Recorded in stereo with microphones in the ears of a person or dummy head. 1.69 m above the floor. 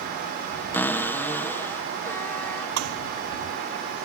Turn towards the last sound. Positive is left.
turn(degrees=-80)